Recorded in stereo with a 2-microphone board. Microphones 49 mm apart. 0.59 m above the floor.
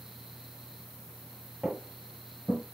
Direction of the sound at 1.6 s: 5° right (ahead or behind).